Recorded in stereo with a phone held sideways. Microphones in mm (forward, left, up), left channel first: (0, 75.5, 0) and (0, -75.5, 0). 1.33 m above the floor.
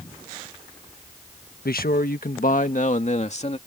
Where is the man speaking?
85° left; by 3.6 s 45° left (ahead or behind).